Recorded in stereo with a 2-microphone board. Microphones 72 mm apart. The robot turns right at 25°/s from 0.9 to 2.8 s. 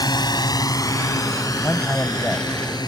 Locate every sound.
0.0 s a drone: 75° left (ahead or behind)
1.6 s a man speaking: 40° left (ahead or behind); by 2.5 s 20° left (ahead or behind)